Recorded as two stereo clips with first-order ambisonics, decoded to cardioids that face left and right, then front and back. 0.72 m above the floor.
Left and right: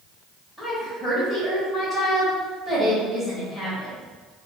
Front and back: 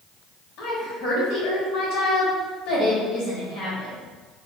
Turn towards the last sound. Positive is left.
turn(degrees=0)